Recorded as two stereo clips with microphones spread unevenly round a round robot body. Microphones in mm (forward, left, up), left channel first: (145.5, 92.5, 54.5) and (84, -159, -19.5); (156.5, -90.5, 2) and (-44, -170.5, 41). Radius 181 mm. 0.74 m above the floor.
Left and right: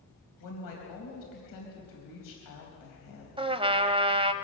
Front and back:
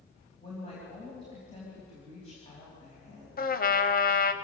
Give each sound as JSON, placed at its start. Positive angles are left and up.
{"t": 0.4, "sound": "a woman speaking", "azimuth_deg": 95, "distance_m": 4.0}
{"t": 3.4, "sound": "a trumpet", "azimuth_deg": -30, "distance_m": 1.5}